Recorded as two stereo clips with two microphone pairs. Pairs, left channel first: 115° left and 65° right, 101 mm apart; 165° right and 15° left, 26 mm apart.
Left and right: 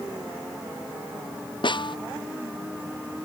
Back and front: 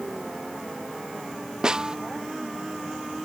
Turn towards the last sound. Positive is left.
turn(degrees=75)